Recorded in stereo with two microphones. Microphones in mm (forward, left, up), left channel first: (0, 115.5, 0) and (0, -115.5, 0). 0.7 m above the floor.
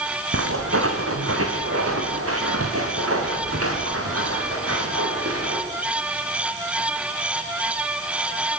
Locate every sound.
0.3 s footsteps: 75° right (ahead or behind), 3.5 m; by 5.6 s 85° right, 7.5 m